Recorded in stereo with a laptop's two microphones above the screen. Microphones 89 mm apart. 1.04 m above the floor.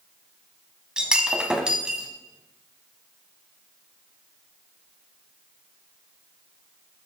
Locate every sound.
1.0 s breaking glass: 10° right (ahead or behind), 1.0 m